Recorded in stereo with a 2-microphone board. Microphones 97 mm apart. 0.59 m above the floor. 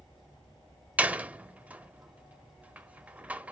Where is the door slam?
15° right (ahead or behind), 0.6 m.